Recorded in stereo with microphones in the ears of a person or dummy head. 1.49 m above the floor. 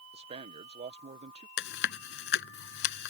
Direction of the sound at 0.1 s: 35° right (ahead or behind).